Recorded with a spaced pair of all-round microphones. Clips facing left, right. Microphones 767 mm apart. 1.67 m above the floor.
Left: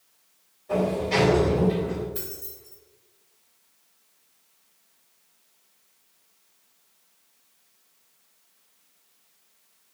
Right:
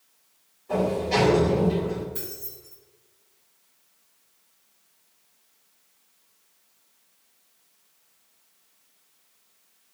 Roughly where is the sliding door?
Left.